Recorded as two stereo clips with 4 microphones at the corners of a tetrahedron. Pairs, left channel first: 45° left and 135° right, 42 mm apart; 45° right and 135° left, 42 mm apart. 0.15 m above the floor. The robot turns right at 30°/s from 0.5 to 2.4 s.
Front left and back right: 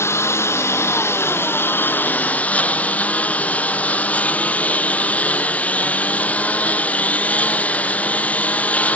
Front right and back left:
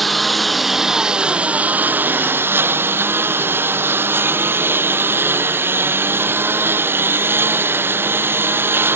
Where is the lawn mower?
45° left; by 9.0 s 100° left.